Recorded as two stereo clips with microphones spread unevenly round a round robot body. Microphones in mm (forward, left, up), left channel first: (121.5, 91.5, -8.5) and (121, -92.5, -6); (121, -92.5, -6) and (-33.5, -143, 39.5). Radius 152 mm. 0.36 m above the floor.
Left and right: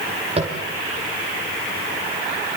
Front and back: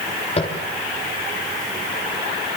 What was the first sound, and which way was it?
Tapping, 35° right.